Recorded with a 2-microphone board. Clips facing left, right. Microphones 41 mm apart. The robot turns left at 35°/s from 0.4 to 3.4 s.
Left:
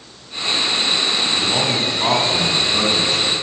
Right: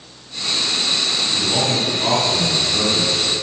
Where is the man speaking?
170° left, 2.5 m; by 3.4 s 95° left, 2.5 m.